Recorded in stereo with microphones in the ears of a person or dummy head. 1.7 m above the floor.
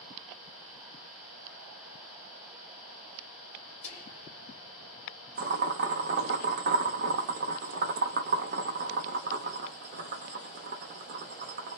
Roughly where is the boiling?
Right.